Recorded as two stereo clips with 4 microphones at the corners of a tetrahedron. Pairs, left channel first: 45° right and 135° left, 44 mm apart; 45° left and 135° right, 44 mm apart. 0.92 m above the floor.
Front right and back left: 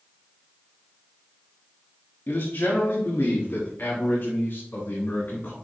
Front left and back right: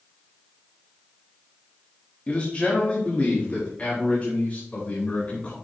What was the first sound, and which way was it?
A man speaking, 15° right.